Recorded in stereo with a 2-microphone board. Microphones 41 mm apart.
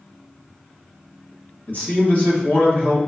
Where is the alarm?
No alarm in this recording.